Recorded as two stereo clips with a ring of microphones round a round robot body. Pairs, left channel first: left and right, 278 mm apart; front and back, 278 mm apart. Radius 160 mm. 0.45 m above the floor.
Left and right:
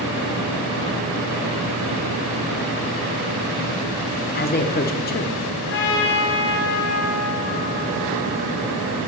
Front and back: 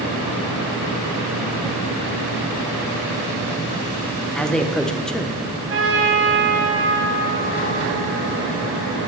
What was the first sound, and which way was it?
A man speaking, 85° left.